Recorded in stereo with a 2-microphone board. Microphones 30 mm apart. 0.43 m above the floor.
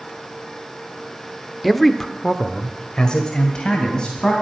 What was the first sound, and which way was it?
A man speaking, centre (ahead or behind).